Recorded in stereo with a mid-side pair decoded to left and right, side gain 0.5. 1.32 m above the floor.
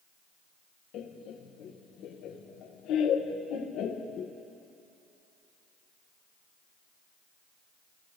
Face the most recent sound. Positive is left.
turn(degrees=70)